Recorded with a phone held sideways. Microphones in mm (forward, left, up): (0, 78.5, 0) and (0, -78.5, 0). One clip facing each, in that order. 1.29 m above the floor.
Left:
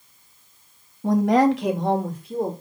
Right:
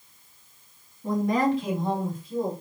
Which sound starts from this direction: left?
A woman speaking, at 1.0 s.